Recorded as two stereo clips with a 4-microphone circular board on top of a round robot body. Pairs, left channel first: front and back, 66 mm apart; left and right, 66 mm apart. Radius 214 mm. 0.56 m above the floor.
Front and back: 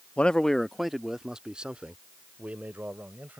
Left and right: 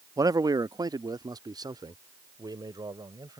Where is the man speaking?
70° right; by 3.4 s 115° right.